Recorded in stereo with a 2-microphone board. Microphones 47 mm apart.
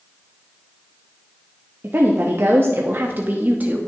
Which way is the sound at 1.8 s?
50° right (ahead or behind).